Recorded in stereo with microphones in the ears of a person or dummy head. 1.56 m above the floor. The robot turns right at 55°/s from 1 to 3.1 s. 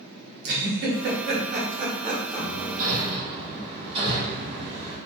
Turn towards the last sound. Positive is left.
turn(degrees=-40)  # may be behind; listen again after turning